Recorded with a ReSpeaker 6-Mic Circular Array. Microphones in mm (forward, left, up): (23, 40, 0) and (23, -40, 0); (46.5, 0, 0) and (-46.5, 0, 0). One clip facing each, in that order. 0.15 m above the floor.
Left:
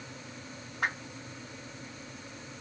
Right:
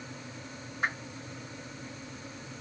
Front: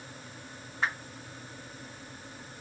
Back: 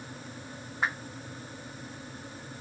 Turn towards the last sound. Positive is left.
turn(degrees=100)